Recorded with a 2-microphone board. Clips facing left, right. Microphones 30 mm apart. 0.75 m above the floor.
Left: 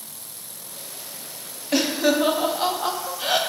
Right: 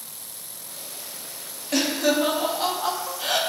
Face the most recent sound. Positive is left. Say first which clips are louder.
# left 2 dB
turn(degrees=15)  # may be behind; listen again after turning